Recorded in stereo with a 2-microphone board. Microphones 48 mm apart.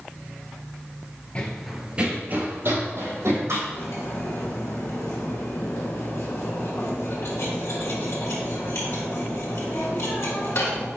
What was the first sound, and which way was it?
Running footsteps, 25° left (ahead or behind).